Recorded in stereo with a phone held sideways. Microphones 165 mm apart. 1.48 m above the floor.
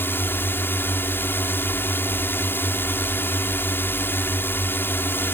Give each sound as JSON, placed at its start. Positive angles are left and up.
{"t": 0.0, "sound": "a drone", "side_deg": 10}